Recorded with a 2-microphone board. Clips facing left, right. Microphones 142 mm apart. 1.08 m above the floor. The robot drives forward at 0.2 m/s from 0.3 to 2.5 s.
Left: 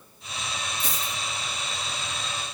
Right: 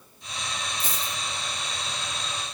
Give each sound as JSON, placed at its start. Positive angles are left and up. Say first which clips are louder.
{"t": 0.8, "sound": "a dropped coin", "louder": "even", "side_deg": -30, "distance_m": 1.7}